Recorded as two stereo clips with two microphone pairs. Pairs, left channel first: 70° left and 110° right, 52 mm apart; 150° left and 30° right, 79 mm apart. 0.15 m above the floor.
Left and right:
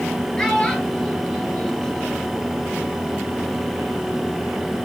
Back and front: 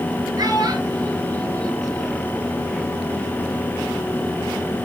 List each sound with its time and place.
0.4 s a child speaking: 5° right, 2 m